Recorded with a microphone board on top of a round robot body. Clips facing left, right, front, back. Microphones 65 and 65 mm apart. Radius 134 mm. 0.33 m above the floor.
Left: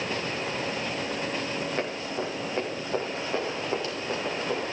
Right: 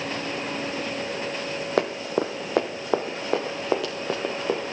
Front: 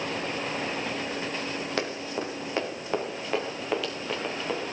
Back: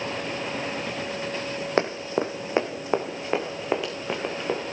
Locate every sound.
1.8 s running footsteps: 120° right, 1.2 m; by 4.6 s 110° right, 2.5 m